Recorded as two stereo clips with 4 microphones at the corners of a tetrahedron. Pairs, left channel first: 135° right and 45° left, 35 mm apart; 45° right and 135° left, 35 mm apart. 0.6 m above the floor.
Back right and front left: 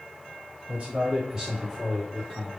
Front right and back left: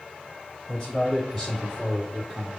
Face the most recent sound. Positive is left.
turn(degrees=180)